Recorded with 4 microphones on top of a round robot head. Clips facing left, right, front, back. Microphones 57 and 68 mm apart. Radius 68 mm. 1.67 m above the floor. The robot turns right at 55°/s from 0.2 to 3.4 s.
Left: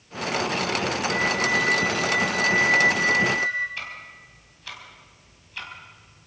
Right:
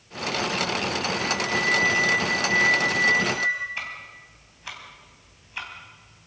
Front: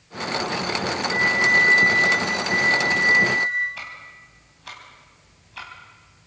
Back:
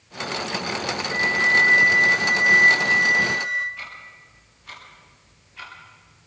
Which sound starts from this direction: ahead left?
A flute, at 1.1 s.